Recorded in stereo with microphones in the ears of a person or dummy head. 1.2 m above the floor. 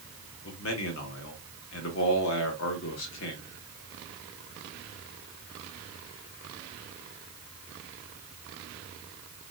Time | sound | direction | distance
0.4 | a man speaking | 70° left (ahead or behind) | 1.3 m